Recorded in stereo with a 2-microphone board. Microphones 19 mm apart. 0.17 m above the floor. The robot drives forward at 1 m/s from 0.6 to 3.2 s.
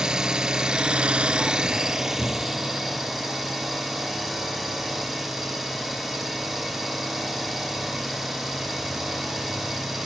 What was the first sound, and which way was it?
An engine running, 40° right (ahead or behind).